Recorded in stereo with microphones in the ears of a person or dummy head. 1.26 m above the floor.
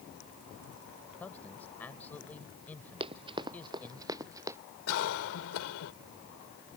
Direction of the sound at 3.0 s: 30° right (ahead or behind).